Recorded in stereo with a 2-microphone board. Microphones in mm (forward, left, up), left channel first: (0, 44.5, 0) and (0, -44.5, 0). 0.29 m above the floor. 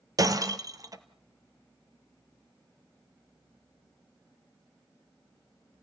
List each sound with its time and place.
0.2 s breaking glass: 40° right (ahead or behind), 1.4 m